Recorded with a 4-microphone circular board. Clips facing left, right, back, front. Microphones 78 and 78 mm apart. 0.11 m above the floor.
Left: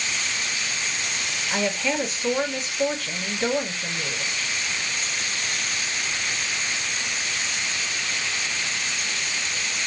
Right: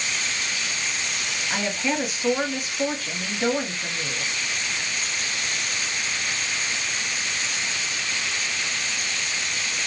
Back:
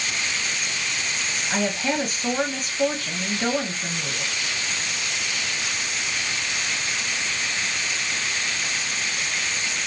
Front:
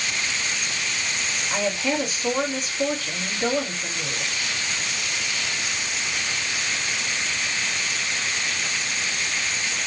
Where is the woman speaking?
165° right, 2 m.